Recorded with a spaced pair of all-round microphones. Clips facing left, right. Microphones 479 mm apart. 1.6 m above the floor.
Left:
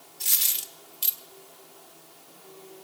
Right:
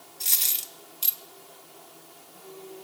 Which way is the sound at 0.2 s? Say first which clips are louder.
Left 1 dB; 30° left (ahead or behind).